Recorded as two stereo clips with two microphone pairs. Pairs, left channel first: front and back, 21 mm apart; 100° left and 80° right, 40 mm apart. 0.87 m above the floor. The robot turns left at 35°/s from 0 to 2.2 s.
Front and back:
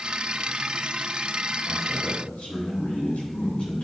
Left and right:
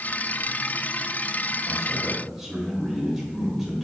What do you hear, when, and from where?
1.7 s a man speaking: 25° left, 3 m; by 3.8 s 5° left, 3 m